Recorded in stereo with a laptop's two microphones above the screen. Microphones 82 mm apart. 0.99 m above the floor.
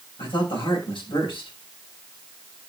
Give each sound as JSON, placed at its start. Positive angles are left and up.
{"t": 0.2, "sound": "a man speaking", "side_deg": 85, "distance_m": 6.5}